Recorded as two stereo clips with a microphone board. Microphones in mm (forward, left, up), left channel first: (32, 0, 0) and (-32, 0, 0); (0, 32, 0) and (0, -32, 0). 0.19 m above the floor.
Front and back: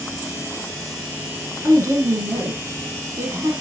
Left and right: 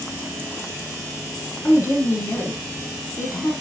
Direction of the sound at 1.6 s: 145° left.